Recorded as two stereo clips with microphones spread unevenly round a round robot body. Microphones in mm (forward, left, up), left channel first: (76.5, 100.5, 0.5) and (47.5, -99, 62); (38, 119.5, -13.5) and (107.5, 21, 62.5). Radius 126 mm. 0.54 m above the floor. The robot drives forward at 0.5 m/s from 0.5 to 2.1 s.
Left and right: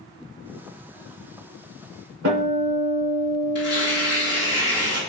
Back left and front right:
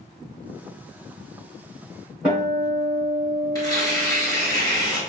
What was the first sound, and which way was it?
A guitar, 140° right.